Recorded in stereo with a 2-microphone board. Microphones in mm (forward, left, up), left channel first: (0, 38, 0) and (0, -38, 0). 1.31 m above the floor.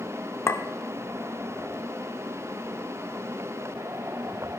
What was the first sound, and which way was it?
A clink, 35° left (ahead or behind).